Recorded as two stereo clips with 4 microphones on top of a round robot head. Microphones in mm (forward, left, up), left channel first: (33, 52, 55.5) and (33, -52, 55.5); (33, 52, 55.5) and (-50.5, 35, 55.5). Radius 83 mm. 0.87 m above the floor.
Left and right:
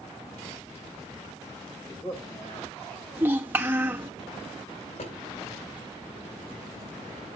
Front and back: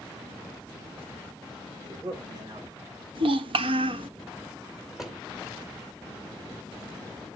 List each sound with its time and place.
1.8 s a man speaking: 155° left, 3.5 m; by 3.0 s 135° left, 3.5 m
3.1 s a child speaking: 160° right, 0.9 m
4.9 s a drawer: 105° left, 2.5 m